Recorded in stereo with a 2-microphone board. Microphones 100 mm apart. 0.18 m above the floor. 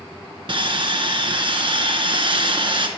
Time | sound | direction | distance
0.5 | sawing | 55° right (ahead or behind) | 1.0 m